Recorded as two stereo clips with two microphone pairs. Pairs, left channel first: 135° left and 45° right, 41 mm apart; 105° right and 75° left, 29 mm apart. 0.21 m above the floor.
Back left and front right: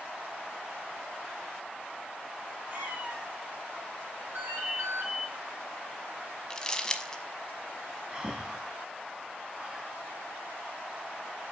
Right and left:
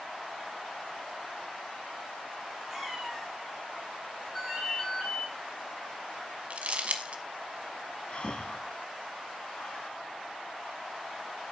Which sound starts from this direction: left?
Crumpling, at 6.5 s.